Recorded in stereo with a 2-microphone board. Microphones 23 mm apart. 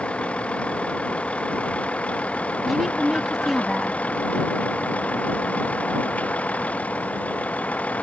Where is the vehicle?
55° left (ahead or behind); by 8.0 s 85° left.